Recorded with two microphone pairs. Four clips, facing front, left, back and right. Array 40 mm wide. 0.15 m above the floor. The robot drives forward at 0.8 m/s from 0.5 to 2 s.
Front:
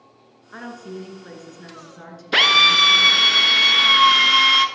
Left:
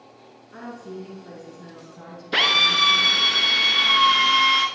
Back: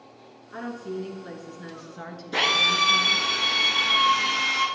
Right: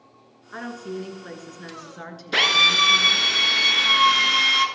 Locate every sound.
0.5 s a woman speaking: 65° right, 2 m; by 3.3 s 110° right, 2 m
2.3 s a drill: 5° right, 1.1 m